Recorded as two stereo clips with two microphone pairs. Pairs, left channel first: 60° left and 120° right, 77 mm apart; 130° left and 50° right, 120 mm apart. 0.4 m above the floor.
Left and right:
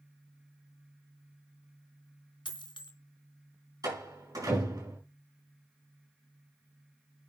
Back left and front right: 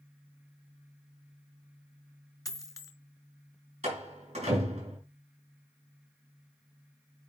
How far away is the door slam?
About 4 m.